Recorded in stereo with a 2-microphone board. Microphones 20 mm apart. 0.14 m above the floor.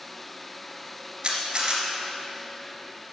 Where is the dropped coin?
No dropped coin in this recording.